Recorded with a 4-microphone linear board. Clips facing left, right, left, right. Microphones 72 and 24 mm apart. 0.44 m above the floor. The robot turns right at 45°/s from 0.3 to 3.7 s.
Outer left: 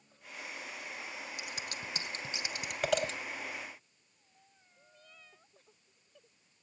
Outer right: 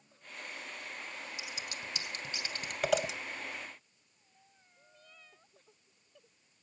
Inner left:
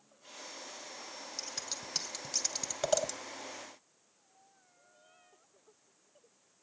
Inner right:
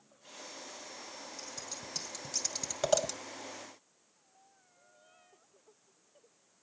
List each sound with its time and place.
1.4 s scissors: 60° left (ahead or behind), 1.9 m; by 3.1 s 15° right (ahead or behind), 1.9 m